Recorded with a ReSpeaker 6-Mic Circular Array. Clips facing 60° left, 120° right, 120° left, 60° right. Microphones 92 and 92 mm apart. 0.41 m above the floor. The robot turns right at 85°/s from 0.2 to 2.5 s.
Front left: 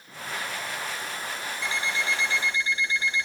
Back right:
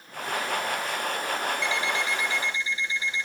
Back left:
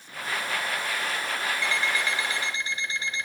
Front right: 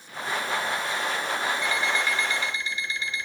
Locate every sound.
1.6 s an alarm clock: 5° left, 0.7 m; by 3.2 s 80° left, 0.7 m